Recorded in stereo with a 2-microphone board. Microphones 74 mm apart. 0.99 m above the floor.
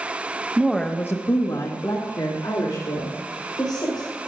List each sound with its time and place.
0.6 s a woman speaking: 15° right (ahead or behind), 0.8 m; by 4.1 s 80° left, 4.5 m